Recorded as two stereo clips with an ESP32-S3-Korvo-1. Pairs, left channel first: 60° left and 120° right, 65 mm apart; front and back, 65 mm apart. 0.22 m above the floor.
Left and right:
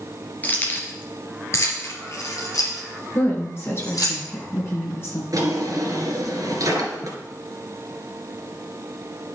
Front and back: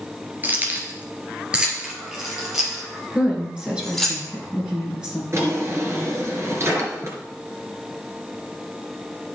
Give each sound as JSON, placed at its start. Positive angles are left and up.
{"t": 0.4, "sound": "keys jangling", "azimuth_deg": 120, "distance_m": 2.0}
{"t": 3.1, "sound": "a woman speaking", "azimuth_deg": 105, "distance_m": 3.5}
{"t": 5.3, "sound": "a drawer", "azimuth_deg": -140, "distance_m": 2.5}